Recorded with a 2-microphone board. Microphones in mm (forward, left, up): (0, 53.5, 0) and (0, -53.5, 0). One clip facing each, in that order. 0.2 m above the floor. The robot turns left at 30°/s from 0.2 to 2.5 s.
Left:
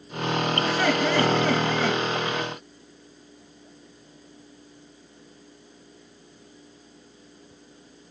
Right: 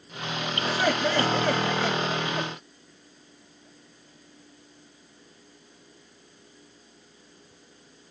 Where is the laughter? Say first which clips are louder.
Even; straight behind, 2.5 m; by 2.5 s 125° left, 2.5 m.